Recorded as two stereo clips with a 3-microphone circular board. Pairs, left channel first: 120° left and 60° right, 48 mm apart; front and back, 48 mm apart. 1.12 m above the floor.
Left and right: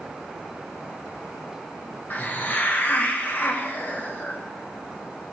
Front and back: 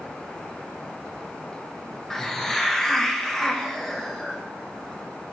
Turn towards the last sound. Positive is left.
turn(degrees=80)